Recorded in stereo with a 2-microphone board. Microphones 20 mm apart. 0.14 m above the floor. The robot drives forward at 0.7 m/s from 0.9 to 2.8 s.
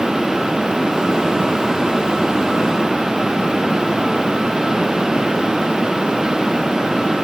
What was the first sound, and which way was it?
Only background noise.